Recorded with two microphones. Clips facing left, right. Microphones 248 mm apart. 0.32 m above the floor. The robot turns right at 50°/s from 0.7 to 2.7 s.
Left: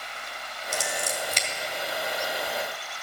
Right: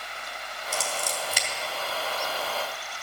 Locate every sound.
0.7 s scissors: 20° left (ahead or behind), 3 m; by 1.5 s 10° right (ahead or behind), 3 m